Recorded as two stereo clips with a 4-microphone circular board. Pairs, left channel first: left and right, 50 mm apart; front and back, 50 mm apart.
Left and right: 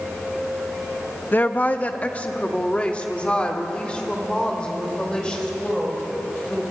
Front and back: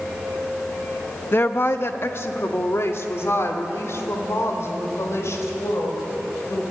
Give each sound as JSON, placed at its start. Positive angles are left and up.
{"t": 1.3, "sound": "a woman speaking", "azimuth_deg": 40, "distance_m": 1.1}